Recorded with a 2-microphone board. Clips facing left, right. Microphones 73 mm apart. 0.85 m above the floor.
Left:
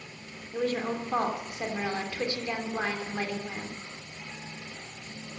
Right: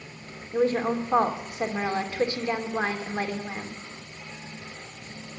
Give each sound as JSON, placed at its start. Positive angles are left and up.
{"t": 0.5, "sound": "a woman speaking", "side_deg": -25, "distance_m": 2.5}